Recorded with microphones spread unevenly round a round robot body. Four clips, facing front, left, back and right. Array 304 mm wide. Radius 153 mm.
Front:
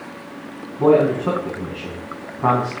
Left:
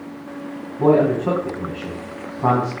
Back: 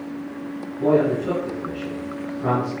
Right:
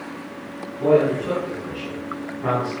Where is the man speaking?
40° left, 6 m.